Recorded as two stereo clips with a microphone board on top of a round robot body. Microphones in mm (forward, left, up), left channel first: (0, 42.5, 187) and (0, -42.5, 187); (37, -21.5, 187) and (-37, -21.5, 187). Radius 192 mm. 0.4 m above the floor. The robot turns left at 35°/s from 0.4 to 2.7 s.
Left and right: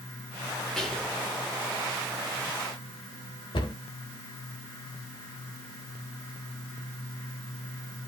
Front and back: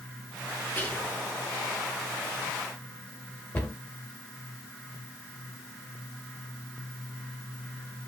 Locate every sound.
0.8 s whispering: 15° left, 0.9 m; by 1.2 s straight ahead, 0.9 m
3.5 s a cupboard door: 70° left, 1.1 m